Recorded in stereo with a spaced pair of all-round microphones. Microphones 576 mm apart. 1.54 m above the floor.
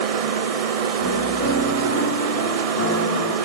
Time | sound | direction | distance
0.0 | a machine running | 75° right (ahead or behind) | 0.9 m
1.0 | a piano | 25° left (ahead or behind) | 3 m